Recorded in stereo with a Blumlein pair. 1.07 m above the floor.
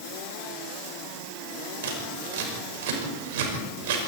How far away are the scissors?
About 6 m.